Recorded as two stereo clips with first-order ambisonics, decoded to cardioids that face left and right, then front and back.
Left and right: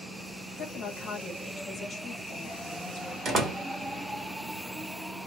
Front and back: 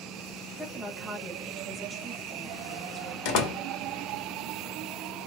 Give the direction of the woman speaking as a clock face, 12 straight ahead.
9 o'clock.